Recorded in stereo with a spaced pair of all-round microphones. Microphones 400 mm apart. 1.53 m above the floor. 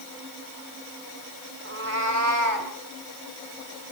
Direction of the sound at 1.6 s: 30° right (ahead or behind).